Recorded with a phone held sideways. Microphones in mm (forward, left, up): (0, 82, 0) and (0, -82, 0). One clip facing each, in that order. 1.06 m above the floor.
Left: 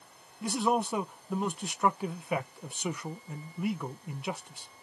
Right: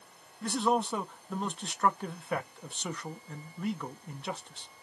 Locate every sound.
0.4 s a man speaking: 10° left (ahead or behind), 0.6 m